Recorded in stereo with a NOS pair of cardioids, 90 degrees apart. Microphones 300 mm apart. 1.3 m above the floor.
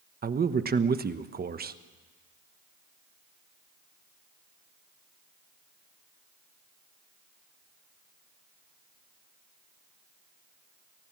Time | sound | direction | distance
0.2 | a man speaking | 30° right | 1.1 m